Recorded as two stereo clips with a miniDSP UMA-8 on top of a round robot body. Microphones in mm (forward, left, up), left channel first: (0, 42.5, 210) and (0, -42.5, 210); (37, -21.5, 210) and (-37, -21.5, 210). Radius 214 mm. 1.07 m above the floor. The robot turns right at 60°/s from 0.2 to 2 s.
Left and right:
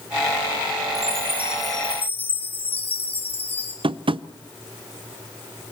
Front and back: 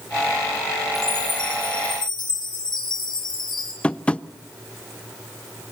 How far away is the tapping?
About 0.6 m.